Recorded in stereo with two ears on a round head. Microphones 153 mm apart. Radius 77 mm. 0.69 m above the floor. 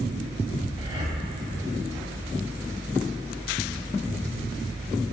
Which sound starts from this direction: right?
Breathing, at 0.8 s.